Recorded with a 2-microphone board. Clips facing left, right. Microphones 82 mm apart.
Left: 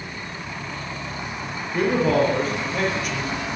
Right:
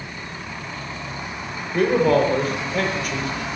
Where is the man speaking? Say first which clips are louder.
Right 2 dB; centre (ahead or behind), 7 m.